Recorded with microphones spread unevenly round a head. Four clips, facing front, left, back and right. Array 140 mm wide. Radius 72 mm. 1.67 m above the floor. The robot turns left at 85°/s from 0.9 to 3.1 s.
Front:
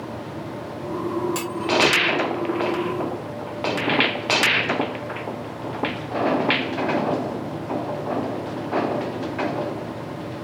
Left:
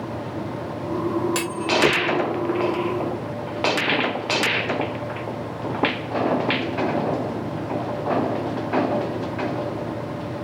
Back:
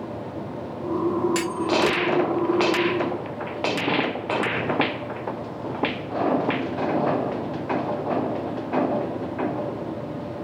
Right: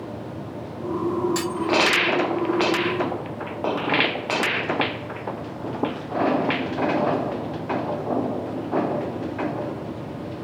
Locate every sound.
1.4 s a clunk: 95° left; by 2.0 s 40° left